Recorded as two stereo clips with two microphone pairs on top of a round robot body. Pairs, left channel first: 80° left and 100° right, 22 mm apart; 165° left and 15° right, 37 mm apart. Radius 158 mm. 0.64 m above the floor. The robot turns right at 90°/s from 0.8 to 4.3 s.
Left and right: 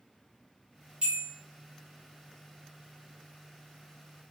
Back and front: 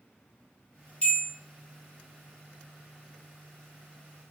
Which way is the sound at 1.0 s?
140° right.